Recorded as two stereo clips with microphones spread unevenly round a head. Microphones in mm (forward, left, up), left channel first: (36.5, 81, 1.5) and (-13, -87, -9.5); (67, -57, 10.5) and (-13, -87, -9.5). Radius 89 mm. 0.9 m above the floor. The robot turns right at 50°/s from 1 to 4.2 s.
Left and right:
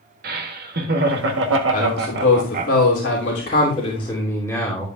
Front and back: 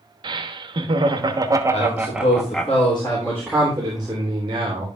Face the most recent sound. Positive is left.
turn(degrees=150)